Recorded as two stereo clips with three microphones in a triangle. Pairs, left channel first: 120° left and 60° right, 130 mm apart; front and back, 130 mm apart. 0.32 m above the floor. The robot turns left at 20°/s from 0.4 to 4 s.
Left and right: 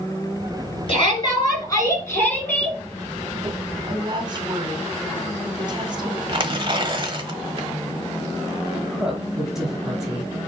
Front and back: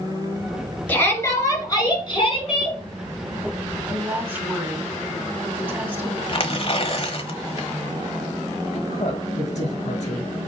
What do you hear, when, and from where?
0.9 s a shout: 75° left, 5 m; by 2.8 s 40° left, 5 m
3.8 s a woman speaking: 105° right, 2.5 m
6.3 s tearing paper: 20° right, 1.1 m
8.7 s a woman speaking: 25° left, 4.5 m